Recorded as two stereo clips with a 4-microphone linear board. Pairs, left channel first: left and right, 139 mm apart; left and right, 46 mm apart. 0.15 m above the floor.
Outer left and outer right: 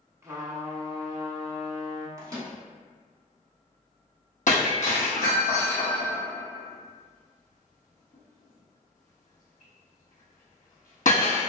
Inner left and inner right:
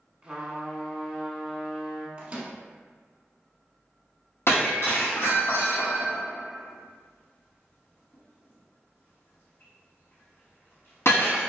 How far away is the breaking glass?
About 1.5 m.